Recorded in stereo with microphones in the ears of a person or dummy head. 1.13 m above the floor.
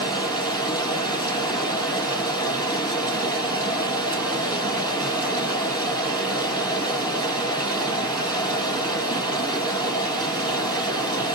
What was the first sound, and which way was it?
Running water, 40° right (ahead or behind).